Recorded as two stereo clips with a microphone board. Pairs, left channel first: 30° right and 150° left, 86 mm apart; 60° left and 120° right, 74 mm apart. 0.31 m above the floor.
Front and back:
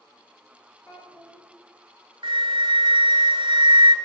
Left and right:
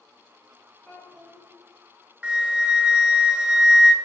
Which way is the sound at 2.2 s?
165° left.